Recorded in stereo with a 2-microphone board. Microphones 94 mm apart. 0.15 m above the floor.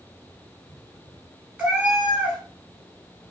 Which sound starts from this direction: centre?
A cat meowing, at 1.6 s.